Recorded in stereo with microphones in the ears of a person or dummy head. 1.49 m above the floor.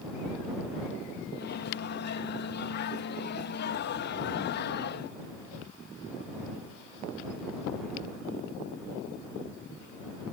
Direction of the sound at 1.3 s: 55° left (ahead or behind).